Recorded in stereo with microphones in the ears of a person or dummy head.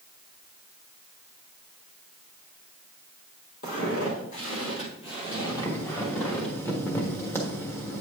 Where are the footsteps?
60° left (ahead or behind), 2.5 m; by 6.5 s 15° left (ahead or behind), 3 m.